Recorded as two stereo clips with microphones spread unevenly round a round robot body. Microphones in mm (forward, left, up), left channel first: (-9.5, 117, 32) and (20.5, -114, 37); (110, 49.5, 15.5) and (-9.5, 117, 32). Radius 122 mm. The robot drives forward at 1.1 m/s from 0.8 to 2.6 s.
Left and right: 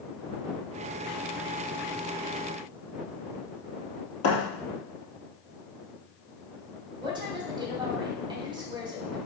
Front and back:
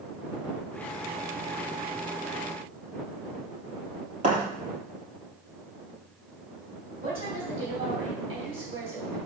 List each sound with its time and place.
4.2 s a thud: 130° left, 3.5 m
7.0 s a woman speaking: 150° right, 2.5 m